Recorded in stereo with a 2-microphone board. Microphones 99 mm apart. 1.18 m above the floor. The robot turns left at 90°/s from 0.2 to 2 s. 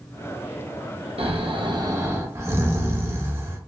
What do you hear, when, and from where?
1.2 s snoring: 80° right, 0.7 m; by 3.6 s 155° right, 0.7 m